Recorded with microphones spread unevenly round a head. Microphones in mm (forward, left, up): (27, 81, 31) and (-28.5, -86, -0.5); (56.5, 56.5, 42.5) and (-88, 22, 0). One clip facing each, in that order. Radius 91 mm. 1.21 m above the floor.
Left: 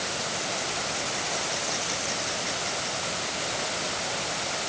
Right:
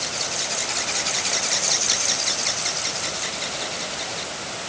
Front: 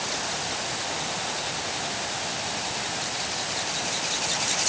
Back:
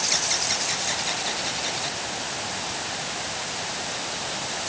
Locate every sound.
Only background noise.